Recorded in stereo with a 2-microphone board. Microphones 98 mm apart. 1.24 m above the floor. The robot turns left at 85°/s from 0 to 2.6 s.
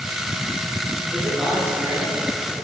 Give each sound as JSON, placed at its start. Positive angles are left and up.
{"t": 1.1, "sound": "a man speaking", "azimuth_deg": 25, "distance_m": 3.0}